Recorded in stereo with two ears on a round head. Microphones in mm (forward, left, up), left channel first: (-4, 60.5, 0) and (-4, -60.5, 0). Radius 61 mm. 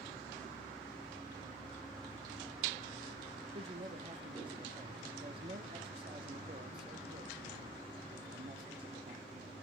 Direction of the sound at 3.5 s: 40° right (ahead or behind).